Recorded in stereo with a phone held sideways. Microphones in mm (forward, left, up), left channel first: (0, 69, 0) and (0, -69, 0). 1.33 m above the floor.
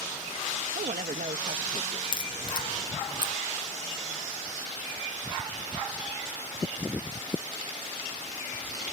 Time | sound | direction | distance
0.8 | a woman speaking | 75° right (ahead or behind) | ?
2.1 | a crack | 35° left (ahead or behind) | ?